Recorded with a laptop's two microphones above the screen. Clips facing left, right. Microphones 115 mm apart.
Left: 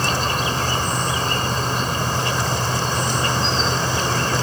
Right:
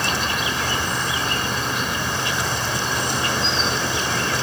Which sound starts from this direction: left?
An insect, at 0.0 s.